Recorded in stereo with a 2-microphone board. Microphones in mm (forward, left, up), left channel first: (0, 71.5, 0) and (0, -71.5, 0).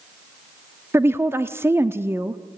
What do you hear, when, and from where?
0.9 s a woman speaking: 15° right (ahead or behind), 0.8 m